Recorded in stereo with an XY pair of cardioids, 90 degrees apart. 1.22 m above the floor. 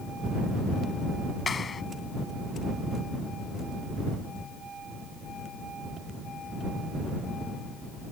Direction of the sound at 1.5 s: 40° left.